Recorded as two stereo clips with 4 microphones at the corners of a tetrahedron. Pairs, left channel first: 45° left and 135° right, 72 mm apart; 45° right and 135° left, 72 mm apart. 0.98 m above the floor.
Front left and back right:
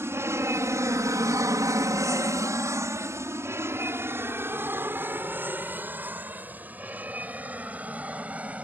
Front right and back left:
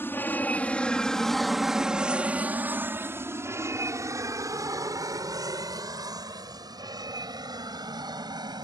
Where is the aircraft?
95° right; by 8.7 s 155° left.